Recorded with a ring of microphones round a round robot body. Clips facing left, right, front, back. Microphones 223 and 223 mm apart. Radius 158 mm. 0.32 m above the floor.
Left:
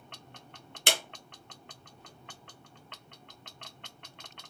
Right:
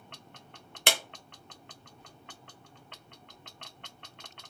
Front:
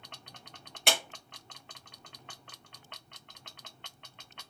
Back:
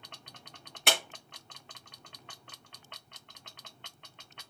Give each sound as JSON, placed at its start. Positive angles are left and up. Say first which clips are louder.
{"t": 0.9, "sound": "a clap", "louder": "right 1 dB, even", "azimuth_deg": -90, "distance_m": 1.1}